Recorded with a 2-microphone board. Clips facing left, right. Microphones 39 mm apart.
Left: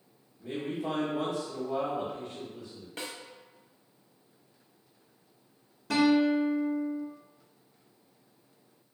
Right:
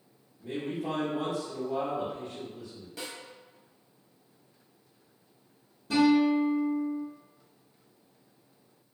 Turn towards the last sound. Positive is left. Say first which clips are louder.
# right 1 dB
turn(degrees=70)  # may be behind; listen again after turning